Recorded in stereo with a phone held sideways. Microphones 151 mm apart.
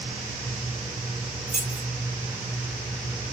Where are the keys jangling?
55° right (ahead or behind), 2 m.